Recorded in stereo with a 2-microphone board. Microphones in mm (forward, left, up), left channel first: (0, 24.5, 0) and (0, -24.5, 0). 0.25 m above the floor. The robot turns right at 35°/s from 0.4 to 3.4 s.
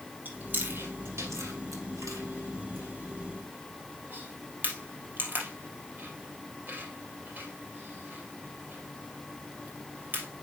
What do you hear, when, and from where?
0.2 s chewing: 35° right (ahead or behind), 3 m; by 10.3 s 40° right (ahead or behind), 3 m